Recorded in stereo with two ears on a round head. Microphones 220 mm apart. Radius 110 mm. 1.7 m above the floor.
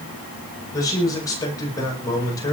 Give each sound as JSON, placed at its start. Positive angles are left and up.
{"t": 0.7, "sound": "a man speaking", "side_deg": 15, "distance_m": 9.0}